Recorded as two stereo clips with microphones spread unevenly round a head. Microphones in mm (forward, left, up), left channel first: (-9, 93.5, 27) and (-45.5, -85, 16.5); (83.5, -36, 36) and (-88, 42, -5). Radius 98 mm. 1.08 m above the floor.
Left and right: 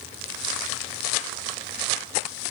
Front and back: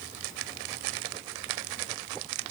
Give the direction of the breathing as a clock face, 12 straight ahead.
No breathing in this recording.